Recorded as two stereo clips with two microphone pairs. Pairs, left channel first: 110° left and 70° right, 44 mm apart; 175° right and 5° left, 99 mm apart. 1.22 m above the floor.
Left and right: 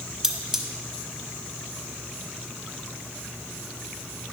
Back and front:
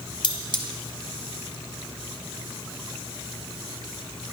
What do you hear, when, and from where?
0.2 s cutlery clinking: 145° right, 1.0 m